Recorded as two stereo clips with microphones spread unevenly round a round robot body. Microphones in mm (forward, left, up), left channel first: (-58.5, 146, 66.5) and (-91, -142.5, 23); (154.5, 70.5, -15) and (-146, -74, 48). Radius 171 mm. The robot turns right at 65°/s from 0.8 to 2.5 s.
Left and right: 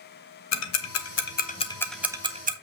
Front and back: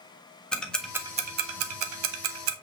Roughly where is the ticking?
Left.